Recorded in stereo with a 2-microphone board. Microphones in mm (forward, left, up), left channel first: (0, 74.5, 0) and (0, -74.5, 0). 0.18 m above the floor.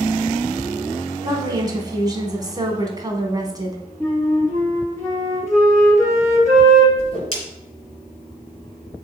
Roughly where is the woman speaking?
Right.